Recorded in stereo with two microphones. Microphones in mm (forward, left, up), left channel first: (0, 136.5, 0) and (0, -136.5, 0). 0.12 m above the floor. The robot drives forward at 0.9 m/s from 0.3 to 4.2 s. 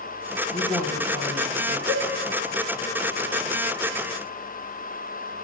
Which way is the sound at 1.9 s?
40° right (ahead or behind).